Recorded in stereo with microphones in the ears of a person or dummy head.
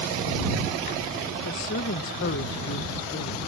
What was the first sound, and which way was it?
A woman speaking, 50° left (ahead or behind).